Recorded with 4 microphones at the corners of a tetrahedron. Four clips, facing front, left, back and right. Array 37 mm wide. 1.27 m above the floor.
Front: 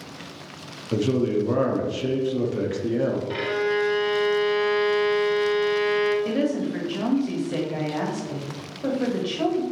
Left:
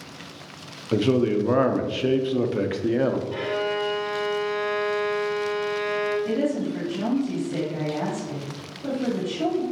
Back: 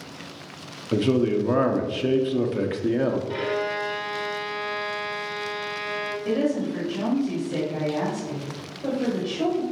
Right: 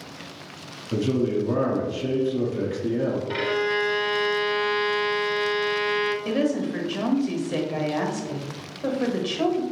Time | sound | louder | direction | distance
0.9 | a man speaking | left 3 dB, back 1 dB | 120° left | 0.5 m
3.3 | a violin | right 2 dB, front 2 dB | 65° right | 0.8 m
6.2 | a woman speaking | right 1 dB, even | 55° right | 1.3 m